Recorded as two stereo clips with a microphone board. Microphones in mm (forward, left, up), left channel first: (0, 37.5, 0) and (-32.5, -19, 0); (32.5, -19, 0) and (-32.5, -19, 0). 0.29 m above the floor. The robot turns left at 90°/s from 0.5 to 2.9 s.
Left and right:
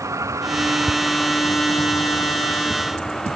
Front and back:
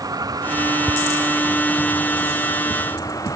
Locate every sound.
0.0 s a vehicle: 160° right; by 3.4 s 25° right